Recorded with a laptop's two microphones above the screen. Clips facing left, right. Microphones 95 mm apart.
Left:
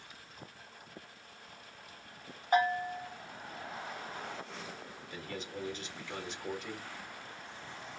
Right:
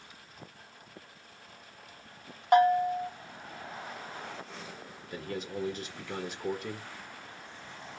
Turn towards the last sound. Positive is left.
turn(degrees=-50)  # may be behind; listen again after turning